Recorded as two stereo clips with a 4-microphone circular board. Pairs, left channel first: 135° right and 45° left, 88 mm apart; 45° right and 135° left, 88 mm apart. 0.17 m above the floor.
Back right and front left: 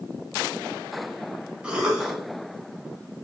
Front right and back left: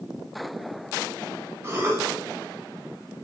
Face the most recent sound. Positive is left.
turn(degrees=115)